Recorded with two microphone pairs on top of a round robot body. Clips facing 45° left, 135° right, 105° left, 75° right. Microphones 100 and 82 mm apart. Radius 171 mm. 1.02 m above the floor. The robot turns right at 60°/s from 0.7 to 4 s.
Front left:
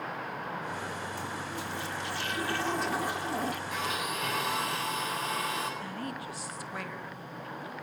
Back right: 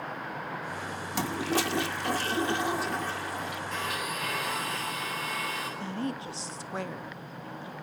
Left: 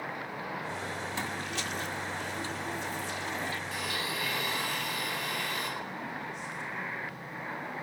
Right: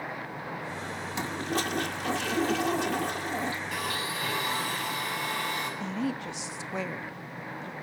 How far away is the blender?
About 8.5 m.